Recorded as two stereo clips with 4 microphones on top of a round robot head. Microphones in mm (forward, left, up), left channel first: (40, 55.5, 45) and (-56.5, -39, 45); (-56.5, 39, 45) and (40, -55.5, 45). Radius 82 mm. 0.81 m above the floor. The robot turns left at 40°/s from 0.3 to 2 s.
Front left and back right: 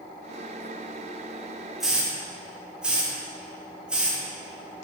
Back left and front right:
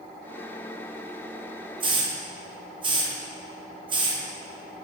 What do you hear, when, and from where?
1.8 s a hiss: 50° right, 0.6 m; by 4.2 s 60° right, 0.6 m